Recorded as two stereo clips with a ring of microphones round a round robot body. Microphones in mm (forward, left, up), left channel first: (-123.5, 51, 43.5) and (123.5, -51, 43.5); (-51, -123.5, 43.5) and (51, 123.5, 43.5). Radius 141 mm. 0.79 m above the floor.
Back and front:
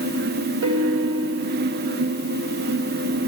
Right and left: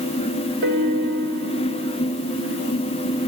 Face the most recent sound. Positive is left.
turn(degrees=20)